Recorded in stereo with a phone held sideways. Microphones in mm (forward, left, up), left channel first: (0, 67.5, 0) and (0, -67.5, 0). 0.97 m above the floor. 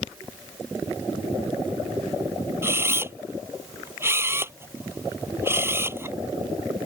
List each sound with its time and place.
2.6 s a camera shutter: 20° right (ahead or behind)